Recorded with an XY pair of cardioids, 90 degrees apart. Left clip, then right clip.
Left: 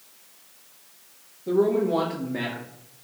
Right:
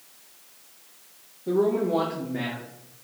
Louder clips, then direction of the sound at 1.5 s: Left 1 dB; 5° right.